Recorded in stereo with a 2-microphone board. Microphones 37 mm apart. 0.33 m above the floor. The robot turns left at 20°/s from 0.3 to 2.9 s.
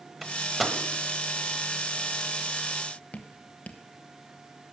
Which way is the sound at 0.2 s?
5° right (ahead or behind).